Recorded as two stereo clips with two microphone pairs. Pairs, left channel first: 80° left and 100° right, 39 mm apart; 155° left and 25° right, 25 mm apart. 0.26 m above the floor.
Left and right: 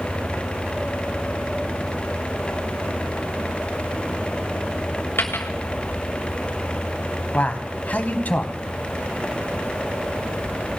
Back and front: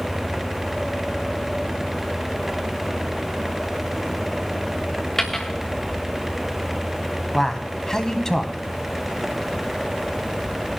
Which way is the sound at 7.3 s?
95° left.